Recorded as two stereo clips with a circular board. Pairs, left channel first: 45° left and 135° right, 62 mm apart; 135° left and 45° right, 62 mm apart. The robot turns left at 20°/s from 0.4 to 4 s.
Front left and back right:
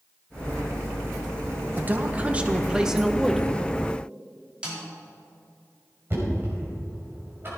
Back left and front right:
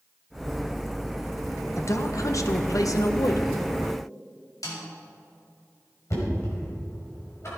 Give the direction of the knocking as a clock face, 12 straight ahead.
6 o'clock.